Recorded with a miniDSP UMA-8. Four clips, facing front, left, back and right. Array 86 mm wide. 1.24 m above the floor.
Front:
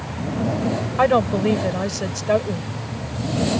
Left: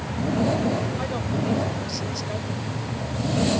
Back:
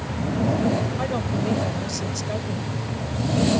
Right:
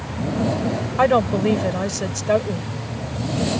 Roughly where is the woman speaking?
Ahead right.